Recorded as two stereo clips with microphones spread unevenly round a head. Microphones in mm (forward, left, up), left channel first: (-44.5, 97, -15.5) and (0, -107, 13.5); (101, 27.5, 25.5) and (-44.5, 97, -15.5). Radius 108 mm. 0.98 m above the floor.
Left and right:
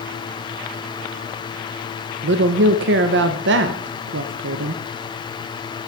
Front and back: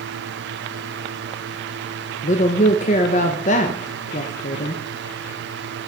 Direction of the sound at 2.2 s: 75° right.